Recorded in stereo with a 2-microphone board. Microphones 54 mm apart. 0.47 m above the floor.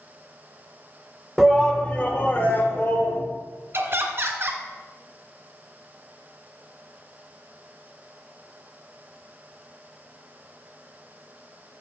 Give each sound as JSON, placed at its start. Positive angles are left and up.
{"t": 1.4, "sound": "a shout", "side_deg": 0, "distance_m": 1.5}
{"t": 3.7, "sound": "laughter", "side_deg": -45, "distance_m": 2.0}